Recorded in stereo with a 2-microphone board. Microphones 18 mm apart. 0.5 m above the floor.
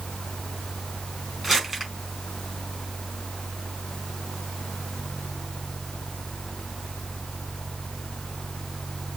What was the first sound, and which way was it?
Crumpling, 20° right (ahead or behind).